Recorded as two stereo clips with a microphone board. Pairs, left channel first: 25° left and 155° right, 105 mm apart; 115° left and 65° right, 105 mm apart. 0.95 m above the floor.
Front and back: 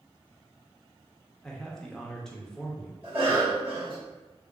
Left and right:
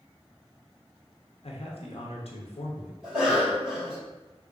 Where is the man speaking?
105° left, 0.7 m.